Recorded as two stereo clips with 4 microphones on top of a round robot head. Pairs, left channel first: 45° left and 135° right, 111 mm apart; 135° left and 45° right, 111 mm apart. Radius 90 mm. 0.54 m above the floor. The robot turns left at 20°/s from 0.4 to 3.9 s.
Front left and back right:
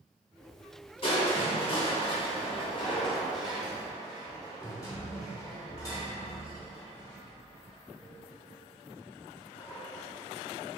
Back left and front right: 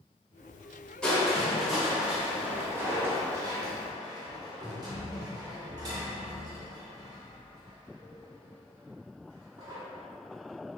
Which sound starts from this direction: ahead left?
Crushing, at 1.0 s.